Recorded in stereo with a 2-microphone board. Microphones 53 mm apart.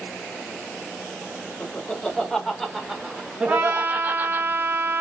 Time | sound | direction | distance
1.6 | laughter | 25° left (ahead or behind) | 1.5 m
3.5 | a trumpet | 45° right (ahead or behind) | 0.9 m